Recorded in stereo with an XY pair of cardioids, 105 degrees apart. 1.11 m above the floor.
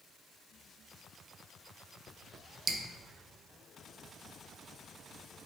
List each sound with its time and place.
2.7 s dripping: 55° right, 0.5 m